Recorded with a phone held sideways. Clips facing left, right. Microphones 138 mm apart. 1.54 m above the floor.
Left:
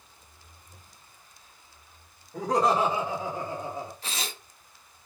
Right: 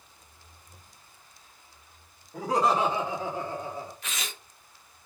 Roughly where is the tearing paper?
Left.